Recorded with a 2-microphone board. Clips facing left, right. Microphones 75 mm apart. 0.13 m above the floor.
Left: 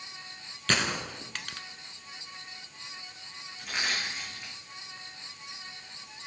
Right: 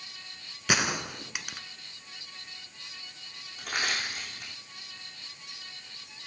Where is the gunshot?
10° right (ahead or behind), 0.8 m.